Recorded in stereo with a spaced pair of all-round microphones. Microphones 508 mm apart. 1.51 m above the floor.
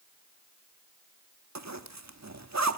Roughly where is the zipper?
Right.